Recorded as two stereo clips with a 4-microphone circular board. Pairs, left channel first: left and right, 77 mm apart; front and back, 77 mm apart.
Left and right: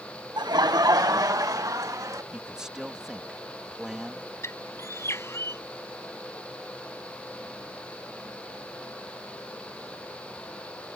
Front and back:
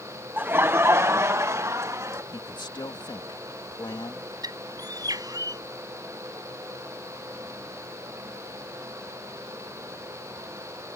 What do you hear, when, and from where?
0.4 s laughter: 115° right; by 2.2 s 130° right
2.3 s a man speaking: 10° right
4.4 s a bird: 145° left